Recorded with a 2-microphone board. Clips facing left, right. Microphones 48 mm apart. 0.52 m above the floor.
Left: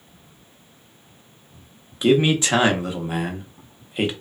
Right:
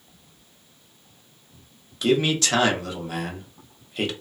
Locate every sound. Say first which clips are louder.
2.0 s a man speaking: left 4 dB; 20° left (ahead or behind), 0.7 m